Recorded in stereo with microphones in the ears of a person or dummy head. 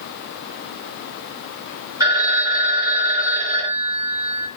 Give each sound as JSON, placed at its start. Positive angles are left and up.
{"t": 2.0, "sound": "a phone ringing", "side_deg": -20, "distance_m": 1.4}